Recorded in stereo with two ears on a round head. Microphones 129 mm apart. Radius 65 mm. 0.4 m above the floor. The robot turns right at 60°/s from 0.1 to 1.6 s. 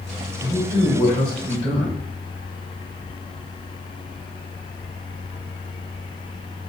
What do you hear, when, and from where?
0.4 s a man speaking: 40° left, 1.7 m; by 2.0 s 110° left, 1.7 m